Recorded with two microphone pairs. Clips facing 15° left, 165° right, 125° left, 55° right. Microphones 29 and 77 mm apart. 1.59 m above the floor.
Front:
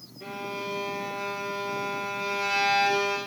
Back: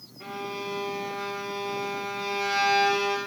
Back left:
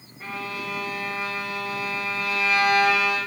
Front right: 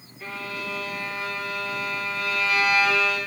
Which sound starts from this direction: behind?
A violin, at 0.2 s.